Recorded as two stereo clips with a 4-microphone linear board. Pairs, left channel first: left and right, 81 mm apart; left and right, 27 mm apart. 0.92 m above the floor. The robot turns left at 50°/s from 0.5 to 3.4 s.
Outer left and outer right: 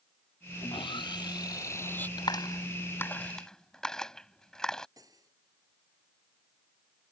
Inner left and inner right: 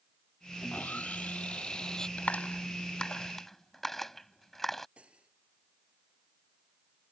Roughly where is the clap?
Left.